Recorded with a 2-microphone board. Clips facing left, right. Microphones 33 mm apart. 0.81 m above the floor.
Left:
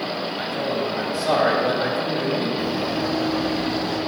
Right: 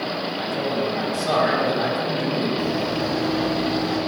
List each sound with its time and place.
0.4 s a man speaking: 20° left (ahead or behind), 4 m; by 2.5 s 15° left (ahead or behind), 3 m
2.6 s running footsteps: 10° left (ahead or behind), 1.4 m; by 4.0 s 5° right (ahead or behind), 2.5 m